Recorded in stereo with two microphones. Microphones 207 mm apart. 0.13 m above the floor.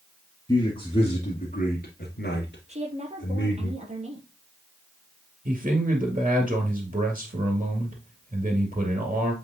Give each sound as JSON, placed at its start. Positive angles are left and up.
{"t": 0.5, "sound": "a man speaking", "side_deg": 20, "distance_m": 2.0}
{"t": 2.7, "sound": "a woman speaking", "side_deg": -35, "distance_m": 3.0}
{"t": 5.5, "sound": "a man speaking", "side_deg": -35, "distance_m": 2.5}